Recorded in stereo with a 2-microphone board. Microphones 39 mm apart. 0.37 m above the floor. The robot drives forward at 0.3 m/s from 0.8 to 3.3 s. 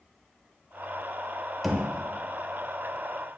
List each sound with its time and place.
1.6 s knocking: centre (ahead or behind), 1.0 m